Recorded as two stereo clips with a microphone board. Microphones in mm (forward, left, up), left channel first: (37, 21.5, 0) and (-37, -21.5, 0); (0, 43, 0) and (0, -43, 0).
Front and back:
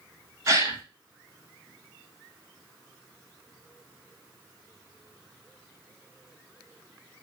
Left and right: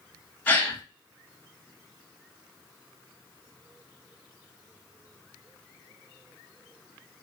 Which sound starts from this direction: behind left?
A gasp, at 0.5 s.